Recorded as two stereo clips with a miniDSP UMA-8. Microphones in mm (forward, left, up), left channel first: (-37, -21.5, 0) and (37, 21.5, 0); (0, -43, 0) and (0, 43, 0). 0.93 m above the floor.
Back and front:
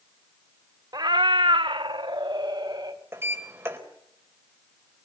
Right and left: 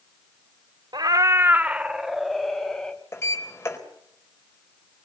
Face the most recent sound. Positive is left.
turn(degrees=-30)